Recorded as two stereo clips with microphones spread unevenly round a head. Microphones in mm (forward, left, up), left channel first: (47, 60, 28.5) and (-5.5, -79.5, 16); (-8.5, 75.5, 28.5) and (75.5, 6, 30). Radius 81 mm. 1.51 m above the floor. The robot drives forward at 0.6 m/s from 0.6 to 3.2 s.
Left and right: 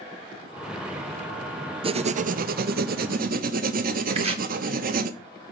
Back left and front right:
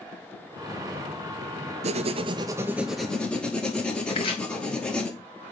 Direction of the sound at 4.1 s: 165° right.